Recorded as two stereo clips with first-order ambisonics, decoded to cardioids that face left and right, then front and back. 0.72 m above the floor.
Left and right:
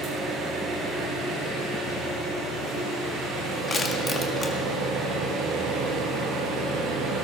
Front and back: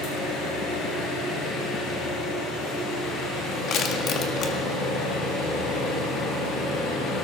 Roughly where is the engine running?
Ahead right.